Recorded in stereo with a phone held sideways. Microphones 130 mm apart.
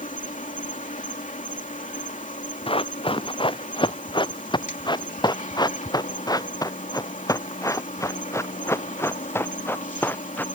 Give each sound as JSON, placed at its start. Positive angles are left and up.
{"t": 0.0, "sound": "an insect", "side_deg": 70}
{"t": 2.7, "sound": "running footsteps", "side_deg": 45}